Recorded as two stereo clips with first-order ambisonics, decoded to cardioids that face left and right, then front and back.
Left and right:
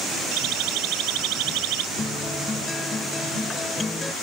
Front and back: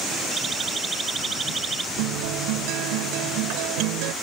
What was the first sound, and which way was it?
A siren, 110° right.